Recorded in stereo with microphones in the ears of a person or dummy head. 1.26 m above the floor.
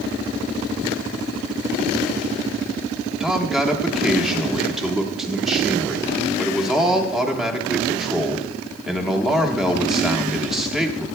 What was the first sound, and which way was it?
A man speaking, 5° right (ahead or behind).